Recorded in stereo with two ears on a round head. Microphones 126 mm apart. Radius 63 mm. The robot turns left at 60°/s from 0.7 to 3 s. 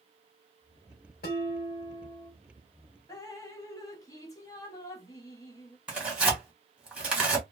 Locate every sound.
1.2 s dishes clattering: 85° left, 1.3 m; by 2.3 s 20° left, 1.3 m
3.1 s dripping: 25° left (ahead or behind), 0.7 m
5.9 s tearing paper: 5° right (ahead or behind), 1.2 m